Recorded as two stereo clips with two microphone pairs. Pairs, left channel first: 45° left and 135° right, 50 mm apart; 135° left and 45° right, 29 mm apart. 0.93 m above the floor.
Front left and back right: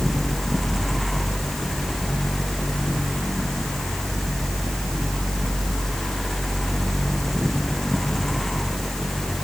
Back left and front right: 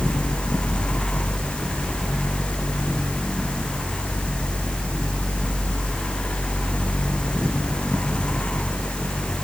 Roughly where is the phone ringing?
I don't hear a phone ringing.